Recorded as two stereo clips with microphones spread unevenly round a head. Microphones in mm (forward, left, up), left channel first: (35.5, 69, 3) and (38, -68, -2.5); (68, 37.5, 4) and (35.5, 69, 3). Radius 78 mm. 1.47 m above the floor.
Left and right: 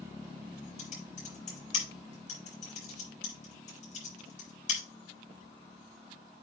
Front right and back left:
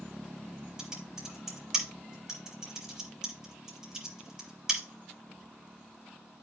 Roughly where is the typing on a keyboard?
Ahead left.